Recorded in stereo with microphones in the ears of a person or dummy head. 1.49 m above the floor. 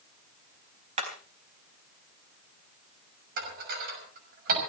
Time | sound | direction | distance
1.0 | hammering | 40° right (ahead or behind) | 4 m
3.4 | dishes clattering | 60° right (ahead or behind) | 6 m